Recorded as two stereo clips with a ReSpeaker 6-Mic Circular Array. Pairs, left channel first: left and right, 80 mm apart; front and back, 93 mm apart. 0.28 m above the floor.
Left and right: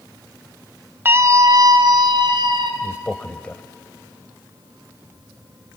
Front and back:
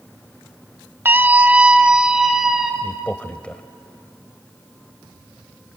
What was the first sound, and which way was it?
A scream, 130° right.